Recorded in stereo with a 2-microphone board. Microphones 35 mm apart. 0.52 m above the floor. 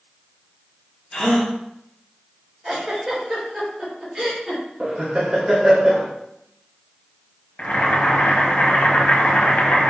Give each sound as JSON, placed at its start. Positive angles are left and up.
{"t": 1.1, "sound": "a gasp", "side_deg": 25, "distance_m": 1.0}
{"t": 2.6, "sound": "a giggle", "side_deg": -20, "distance_m": 1.9}
{"t": 4.8, "sound": "laughter", "side_deg": -25, "distance_m": 0.6}
{"t": 7.6, "sound": "boiling", "side_deg": 60, "distance_m": 0.6}